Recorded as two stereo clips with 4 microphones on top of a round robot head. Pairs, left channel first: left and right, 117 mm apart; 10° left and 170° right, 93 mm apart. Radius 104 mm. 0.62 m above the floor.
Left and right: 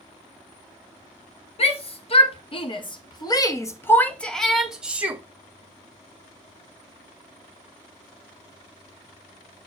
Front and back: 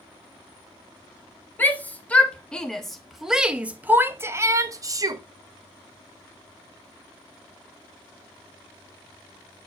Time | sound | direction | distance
1.6 | a shout | 80° left | 1.8 m